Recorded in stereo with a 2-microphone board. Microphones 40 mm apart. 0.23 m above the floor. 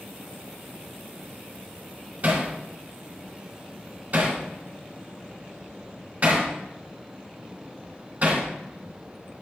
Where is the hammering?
40° right (ahead or behind), 2.5 m.